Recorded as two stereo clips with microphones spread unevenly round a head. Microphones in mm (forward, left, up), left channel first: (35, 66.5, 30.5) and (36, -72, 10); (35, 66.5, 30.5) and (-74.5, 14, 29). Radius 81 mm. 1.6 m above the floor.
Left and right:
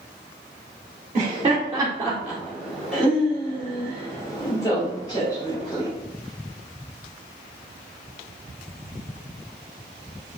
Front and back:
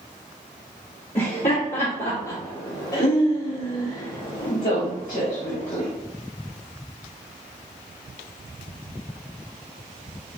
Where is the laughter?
35° right, 1.1 m; by 5.9 s 30° left, 2.5 m.